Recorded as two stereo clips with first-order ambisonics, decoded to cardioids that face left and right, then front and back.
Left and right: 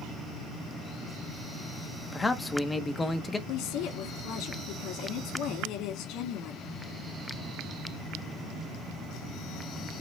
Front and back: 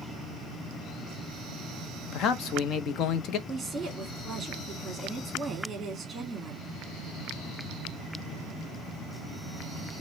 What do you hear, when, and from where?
2.1 s a man speaking: 15° left, 0.6 m
3.5 s a woman speaking: 105° left, 1.5 m